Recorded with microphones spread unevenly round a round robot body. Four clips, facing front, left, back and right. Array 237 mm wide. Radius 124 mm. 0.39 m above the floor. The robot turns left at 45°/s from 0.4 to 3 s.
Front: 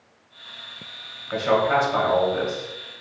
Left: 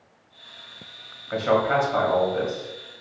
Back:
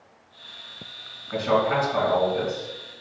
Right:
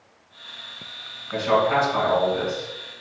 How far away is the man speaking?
About 1.9 m.